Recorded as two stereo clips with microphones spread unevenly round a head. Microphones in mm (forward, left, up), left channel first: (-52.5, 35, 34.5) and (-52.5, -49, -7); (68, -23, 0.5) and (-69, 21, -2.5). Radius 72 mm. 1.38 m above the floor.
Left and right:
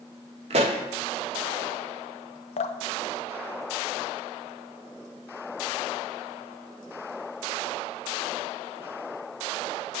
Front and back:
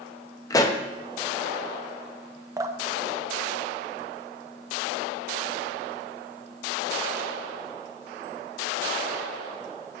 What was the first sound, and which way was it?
A pop, 70° right.